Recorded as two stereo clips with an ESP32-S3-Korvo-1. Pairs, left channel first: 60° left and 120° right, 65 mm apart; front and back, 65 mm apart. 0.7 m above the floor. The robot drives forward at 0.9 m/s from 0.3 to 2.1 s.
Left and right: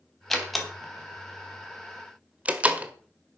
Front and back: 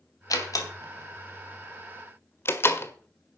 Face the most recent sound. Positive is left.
turn(degrees=-50)